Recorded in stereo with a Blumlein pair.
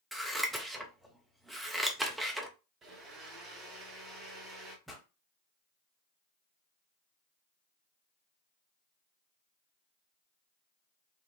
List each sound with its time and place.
0.1 s scissors: 5° right, 0.5 m
2.8 s a blender: 25° right, 0.9 m
4.9 s a pop: 5° left, 0.9 m